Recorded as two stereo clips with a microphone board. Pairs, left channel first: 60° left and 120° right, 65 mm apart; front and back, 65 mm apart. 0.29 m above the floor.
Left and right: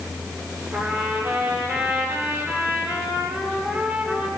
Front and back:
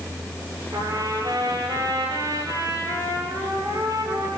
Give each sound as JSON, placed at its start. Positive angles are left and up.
{"t": 0.7, "sound": "a trumpet", "azimuth_deg": -175, "distance_m": 8.5}